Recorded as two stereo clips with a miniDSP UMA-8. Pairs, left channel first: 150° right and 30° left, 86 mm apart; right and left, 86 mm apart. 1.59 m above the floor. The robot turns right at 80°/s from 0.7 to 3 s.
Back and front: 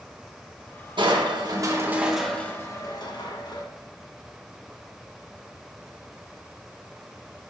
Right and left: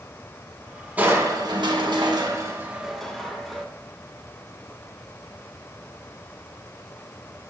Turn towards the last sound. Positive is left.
turn(degrees=-175)